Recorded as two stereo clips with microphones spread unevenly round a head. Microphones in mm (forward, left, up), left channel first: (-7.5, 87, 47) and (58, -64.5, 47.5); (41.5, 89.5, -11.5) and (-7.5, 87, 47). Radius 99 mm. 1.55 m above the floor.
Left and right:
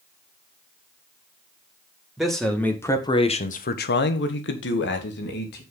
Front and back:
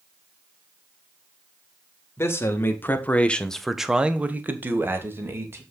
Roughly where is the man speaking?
Ahead.